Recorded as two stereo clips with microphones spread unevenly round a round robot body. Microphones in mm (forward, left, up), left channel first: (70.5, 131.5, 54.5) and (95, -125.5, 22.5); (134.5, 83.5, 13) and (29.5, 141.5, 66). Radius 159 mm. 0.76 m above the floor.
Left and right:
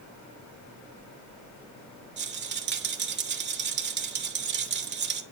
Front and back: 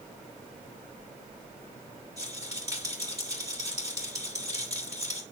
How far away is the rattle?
About 1.4 m.